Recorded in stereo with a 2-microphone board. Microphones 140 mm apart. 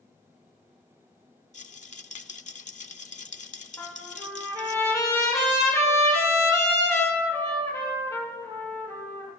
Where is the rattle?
60° left (ahead or behind), 0.5 m.